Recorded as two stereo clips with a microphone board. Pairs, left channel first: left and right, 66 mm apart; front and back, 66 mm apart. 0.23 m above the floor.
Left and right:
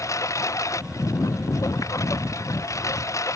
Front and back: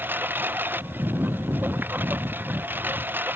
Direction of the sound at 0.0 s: 125° left.